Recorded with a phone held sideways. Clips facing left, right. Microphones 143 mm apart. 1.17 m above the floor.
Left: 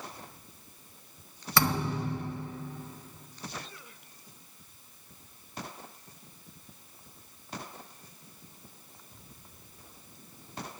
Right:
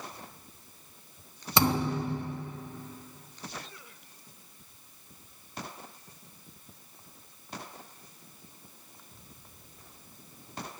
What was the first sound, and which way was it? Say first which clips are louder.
A thud: right 2 dB; 20° right (ahead or behind).